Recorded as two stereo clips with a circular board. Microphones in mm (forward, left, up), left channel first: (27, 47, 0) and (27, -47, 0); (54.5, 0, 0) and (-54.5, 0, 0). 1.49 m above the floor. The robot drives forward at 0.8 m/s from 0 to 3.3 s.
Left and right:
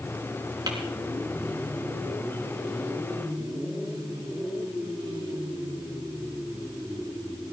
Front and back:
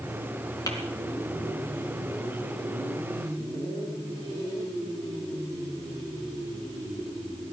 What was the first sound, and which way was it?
Tapping, 55° right.